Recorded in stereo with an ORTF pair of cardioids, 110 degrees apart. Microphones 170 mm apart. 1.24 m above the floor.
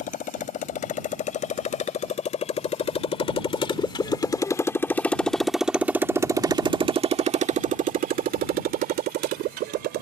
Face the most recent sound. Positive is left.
turn(degrees=-75)